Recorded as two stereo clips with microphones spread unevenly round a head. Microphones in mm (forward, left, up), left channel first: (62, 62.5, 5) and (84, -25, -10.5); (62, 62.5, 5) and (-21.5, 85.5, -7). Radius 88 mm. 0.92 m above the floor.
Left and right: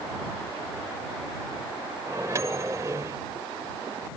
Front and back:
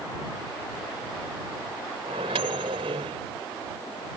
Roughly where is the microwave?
Behind right.